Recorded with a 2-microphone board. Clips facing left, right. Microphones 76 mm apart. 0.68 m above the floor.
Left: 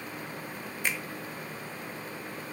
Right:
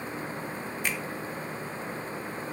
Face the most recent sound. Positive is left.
turn(degrees=0)  # may be behind; listen again after turning